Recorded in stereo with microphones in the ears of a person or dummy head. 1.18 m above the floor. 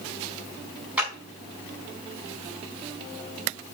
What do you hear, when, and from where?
1.0 s a clap: 10° right (ahead or behind), 4 m